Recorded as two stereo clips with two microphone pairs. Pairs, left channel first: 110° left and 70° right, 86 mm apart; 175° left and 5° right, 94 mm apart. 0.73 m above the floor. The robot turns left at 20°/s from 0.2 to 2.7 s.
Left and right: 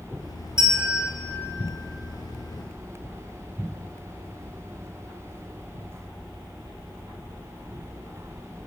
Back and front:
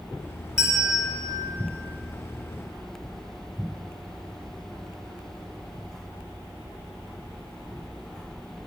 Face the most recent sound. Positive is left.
turn(degrees=-135)